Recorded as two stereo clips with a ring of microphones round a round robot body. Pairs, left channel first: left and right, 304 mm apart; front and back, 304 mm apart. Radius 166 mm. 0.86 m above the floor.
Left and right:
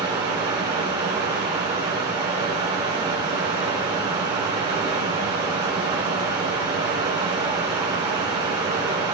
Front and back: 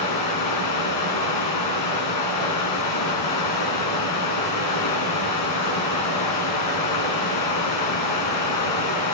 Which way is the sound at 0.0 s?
10° right.